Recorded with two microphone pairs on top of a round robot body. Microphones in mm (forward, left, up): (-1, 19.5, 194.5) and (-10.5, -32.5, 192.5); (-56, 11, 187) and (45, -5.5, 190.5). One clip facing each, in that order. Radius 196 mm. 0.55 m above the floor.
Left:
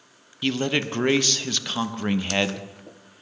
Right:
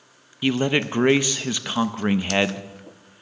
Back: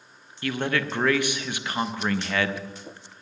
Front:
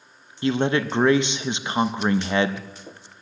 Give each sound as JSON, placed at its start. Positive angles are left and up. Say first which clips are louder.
{"t": 0.4, "sound": "a man speaking", "louder": "right 3 dB, front 5 dB", "azimuth_deg": -50, "distance_m": 0.8}